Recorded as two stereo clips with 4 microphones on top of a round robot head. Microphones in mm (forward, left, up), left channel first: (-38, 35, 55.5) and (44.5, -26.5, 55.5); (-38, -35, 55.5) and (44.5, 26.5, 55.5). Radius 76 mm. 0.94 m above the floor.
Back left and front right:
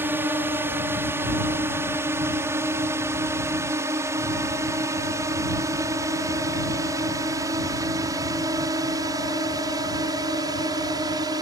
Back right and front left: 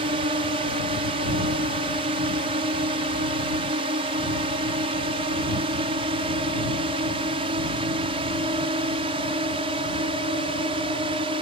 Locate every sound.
0.0 s a drone: 30° left; by 11.4 s 10° left